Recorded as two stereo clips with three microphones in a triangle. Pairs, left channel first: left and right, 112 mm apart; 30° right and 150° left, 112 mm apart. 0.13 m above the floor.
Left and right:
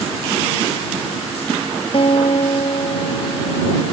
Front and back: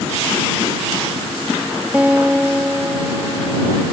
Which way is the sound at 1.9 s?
75° left.